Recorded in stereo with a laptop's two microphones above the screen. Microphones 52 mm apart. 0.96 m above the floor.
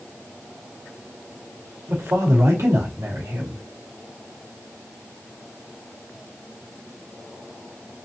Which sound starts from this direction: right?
A man speaking, at 1.9 s.